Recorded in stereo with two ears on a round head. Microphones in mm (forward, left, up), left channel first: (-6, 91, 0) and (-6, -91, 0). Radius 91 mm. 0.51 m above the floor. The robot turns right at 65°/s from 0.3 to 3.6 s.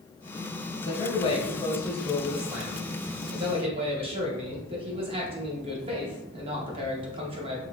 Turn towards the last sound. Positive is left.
turn(degrees=-30)  # may be behind; listen again after turning